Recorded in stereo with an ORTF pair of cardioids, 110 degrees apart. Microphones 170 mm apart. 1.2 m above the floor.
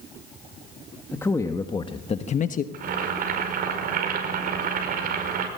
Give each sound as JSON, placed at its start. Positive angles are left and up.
{"t": 1.1, "sound": "a man speaking", "azimuth_deg": 10, "distance_m": 1.5}
{"t": 2.7, "sound": "boiling", "azimuth_deg": -55, "distance_m": 5.5}